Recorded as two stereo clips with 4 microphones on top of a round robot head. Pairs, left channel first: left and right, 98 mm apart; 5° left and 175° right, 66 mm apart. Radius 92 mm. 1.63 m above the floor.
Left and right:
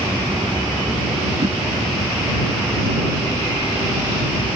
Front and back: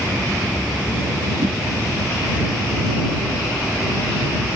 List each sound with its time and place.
1.4 s a whoosh: 145° right